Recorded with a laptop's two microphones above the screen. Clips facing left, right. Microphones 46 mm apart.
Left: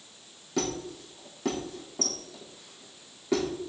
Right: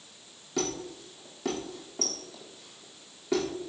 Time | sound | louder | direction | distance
0.6 | a squeak | left 1 dB | centre (ahead or behind) | 7 m